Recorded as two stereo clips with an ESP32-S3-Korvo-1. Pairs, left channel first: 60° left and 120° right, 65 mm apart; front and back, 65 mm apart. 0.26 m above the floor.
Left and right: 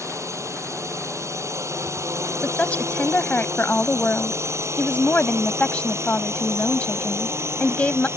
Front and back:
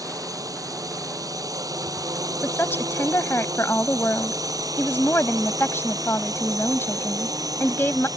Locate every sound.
0.0 s a drone: 155° right; by 8.2 s 165° right
2.4 s a woman speaking: 10° left